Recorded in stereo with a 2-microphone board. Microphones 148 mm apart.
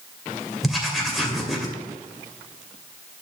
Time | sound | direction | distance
0.6 | writing | centre (ahead or behind) | 2.5 m